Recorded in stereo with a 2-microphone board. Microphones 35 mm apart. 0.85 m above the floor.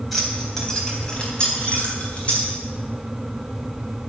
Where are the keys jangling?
5° left (ahead or behind), 3.5 m; by 2.5 s 40° left (ahead or behind), 5.5 m.